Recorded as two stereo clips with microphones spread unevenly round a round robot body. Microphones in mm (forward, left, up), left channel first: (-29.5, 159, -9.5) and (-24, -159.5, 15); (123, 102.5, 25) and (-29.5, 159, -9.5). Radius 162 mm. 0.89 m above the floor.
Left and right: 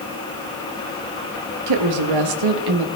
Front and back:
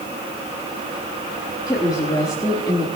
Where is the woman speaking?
100° right, 1.3 m.